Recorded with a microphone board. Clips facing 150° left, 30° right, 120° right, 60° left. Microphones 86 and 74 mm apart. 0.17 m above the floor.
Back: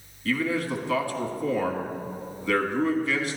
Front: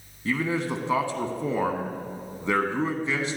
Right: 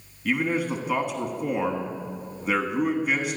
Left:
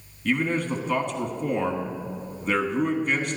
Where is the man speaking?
45° right, 1.2 m.